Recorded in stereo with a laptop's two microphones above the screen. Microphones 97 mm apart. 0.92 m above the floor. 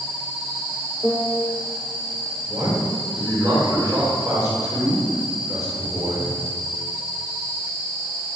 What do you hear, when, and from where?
1.0 s a piano: centre (ahead or behind), 0.6 m
2.5 s a man speaking: 35° right (ahead or behind), 3.5 m